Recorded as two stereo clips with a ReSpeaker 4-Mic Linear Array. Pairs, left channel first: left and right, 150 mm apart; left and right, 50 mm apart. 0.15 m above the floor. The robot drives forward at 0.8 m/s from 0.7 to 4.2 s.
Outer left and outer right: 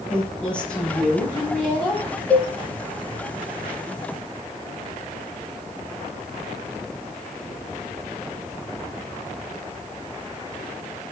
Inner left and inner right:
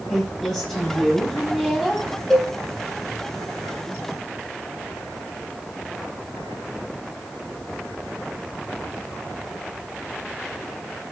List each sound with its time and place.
0.1 s a woman speaking: 5° left (ahead or behind), 4.5 m
2.3 s a cowbell: 10° left (ahead or behind), 1.4 m